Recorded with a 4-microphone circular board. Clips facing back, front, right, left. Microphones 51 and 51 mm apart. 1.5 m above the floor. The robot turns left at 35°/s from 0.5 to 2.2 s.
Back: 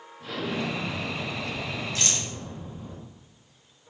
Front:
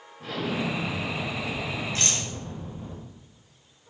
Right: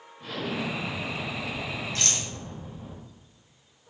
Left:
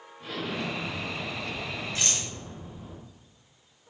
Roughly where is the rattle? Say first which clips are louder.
Front 1 dB, right 1 dB; ahead left.